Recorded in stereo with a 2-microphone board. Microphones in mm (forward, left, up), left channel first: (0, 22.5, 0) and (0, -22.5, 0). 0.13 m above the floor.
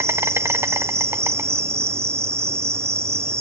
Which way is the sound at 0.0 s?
85° right.